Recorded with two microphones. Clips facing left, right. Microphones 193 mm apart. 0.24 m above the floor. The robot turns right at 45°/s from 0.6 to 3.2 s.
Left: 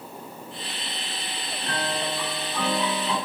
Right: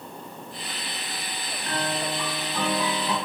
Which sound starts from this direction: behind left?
A piano, at 1.6 s.